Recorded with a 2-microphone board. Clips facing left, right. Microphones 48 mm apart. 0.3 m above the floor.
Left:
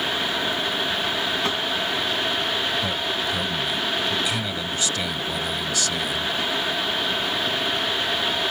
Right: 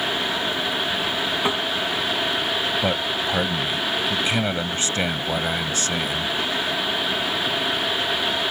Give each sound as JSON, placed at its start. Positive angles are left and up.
{"t": 1.4, "sound": "tapping", "side_deg": -15}
{"t": 2.8, "sound": "a man speaking", "side_deg": -35}